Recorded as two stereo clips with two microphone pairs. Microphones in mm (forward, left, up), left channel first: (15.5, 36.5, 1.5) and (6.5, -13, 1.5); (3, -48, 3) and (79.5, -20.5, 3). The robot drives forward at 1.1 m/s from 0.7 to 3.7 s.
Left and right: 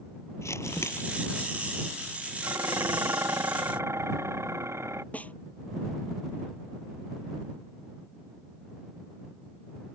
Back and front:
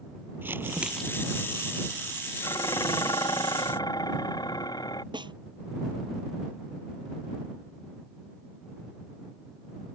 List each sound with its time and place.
0.4 s crumpling: 80° left; by 1.4 s 140° left
2.4 s dishes clattering: 115° right; by 5.0 s 125° right
5.1 s a snare drum: 25° left